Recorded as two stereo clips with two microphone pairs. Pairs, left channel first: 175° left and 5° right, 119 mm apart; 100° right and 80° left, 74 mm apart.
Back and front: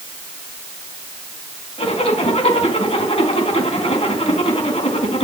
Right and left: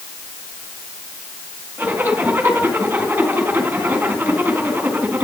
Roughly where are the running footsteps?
No running footsteps in this recording.